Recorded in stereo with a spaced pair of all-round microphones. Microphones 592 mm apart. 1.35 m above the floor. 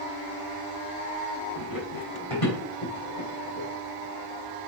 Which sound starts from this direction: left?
Running footsteps, at 1.6 s.